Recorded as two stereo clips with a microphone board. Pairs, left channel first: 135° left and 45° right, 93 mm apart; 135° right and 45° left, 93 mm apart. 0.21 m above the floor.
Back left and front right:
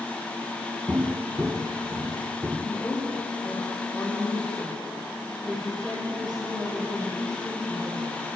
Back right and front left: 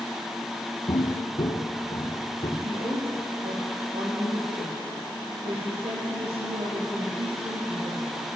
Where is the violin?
No violin in this recording.